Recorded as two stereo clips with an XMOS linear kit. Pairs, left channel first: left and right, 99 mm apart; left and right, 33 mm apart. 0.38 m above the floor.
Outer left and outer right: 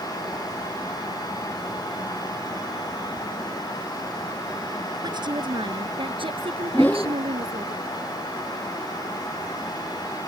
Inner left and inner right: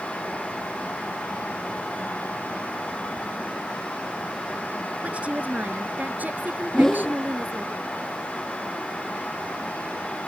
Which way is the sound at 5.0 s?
45° right (ahead or behind).